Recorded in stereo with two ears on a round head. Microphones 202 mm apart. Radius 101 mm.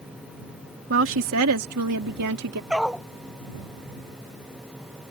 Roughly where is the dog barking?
Centre.